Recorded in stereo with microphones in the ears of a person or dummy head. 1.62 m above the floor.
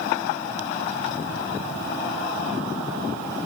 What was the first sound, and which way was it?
Only background noise.